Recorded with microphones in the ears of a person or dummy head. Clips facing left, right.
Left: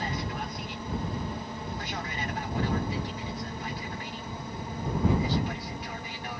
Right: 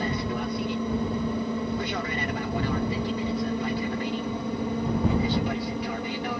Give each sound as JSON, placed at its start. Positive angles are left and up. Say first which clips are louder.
{"t": 0.0, "sound": "an aircraft", "louder": "right 6 dB", "side_deg": -55}